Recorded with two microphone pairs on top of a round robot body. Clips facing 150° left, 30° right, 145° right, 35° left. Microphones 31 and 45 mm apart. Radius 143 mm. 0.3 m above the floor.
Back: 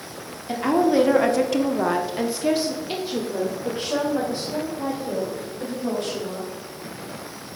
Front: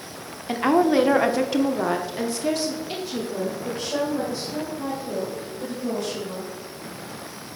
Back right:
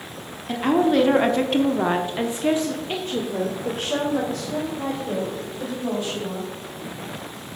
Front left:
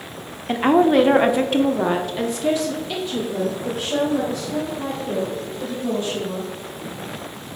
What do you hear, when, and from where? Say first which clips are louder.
0.5 s a woman speaking: front 1 dB, front left 4 dB; 5° right, 1.2 m; by 6.5 s 155° right, 3.5 m